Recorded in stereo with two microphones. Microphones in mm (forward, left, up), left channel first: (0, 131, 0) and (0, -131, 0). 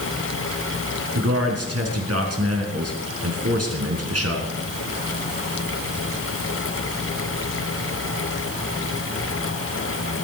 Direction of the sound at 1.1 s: 65° right (ahead or behind).